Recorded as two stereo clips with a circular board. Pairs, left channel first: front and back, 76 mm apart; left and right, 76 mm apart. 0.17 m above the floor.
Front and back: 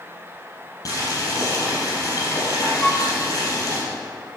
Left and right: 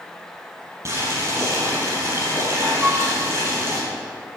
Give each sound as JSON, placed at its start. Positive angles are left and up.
{"t": 0.8, "sound": "boiling", "azimuth_deg": -40, "distance_m": 4.5}
{"t": 2.8, "sound": "a flute", "azimuth_deg": -60, "distance_m": 0.8}